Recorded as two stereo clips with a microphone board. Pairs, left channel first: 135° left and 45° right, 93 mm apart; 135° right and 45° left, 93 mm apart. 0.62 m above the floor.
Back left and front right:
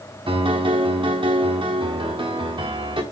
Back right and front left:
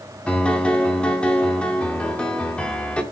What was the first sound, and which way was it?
A piano, 55° right.